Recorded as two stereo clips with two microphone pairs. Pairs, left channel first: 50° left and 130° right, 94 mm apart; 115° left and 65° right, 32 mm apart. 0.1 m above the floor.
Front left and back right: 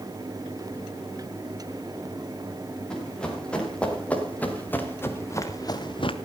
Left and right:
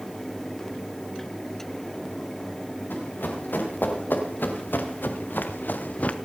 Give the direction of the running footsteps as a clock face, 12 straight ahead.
8 o'clock.